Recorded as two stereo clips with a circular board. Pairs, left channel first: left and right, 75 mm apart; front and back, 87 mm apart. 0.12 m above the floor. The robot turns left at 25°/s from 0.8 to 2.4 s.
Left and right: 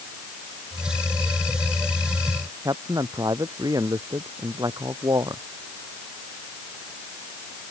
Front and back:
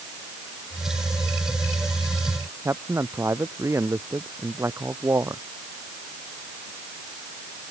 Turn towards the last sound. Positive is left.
turn(degrees=-120)